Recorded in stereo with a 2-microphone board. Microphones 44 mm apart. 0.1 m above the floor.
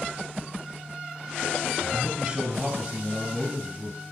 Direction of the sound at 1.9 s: 25° right (ahead or behind).